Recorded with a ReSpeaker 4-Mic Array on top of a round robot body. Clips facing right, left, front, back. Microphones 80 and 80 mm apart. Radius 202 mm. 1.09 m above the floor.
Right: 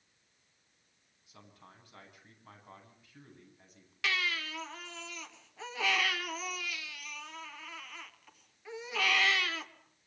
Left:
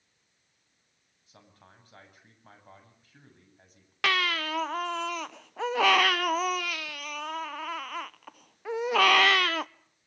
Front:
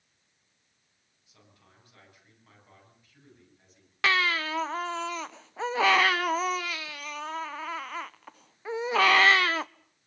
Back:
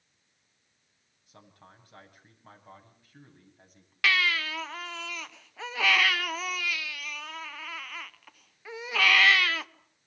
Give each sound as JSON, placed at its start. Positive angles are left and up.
{"t": 1.3, "sound": "a man speaking", "azimuth_deg": 140, "distance_m": 8.5}
{"t": 4.0, "sound": "a baby crying", "azimuth_deg": 60, "distance_m": 0.6}